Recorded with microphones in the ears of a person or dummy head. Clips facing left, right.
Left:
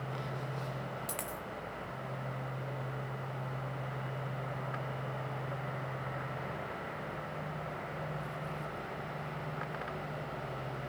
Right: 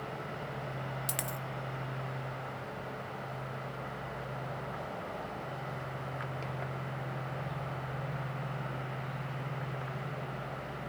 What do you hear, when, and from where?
1.1 s a dropped coin: 15° right (ahead or behind), 0.6 m